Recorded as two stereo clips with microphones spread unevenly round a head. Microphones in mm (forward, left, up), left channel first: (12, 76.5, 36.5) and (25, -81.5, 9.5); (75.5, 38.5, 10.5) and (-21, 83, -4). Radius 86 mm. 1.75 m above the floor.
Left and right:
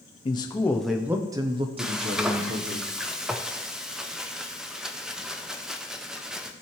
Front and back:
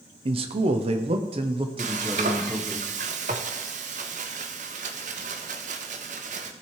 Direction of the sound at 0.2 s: 135° left.